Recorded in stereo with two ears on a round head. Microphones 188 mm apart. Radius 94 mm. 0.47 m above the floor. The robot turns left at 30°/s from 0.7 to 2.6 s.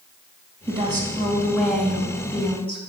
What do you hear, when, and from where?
0.7 s a woman speaking: 150° right, 3 m; by 2.8 s 155° left, 3 m